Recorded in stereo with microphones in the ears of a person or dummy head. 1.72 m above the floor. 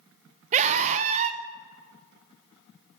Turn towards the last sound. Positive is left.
turn(degrees=-40)  # may be behind; listen again after turning